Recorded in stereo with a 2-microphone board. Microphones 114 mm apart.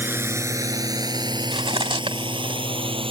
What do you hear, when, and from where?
0.0 s a drone: 20° right (ahead or behind); by 3.1 s 50° right (ahead or behind)
1.5 s cutlery clinking: 55° right (ahead or behind)